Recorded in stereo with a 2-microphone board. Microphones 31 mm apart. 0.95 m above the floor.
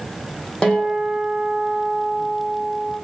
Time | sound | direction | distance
0.6 | a guitar | 30° left (ahead or behind) | 3 m